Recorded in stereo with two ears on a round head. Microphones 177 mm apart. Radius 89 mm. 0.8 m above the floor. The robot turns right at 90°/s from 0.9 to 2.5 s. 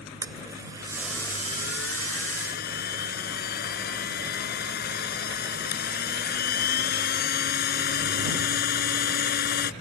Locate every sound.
0.2 s a blender: 15° right; by 9.7 s 125° left